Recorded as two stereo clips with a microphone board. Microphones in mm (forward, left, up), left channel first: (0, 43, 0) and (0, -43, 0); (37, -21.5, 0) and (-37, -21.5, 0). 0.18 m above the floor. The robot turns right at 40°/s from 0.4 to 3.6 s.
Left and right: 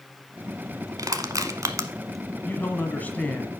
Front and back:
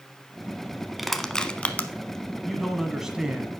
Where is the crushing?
90° right, 0.6 m; by 1.9 s 55° right, 0.6 m.